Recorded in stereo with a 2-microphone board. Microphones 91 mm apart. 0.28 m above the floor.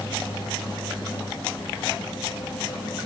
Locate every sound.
Only background noise.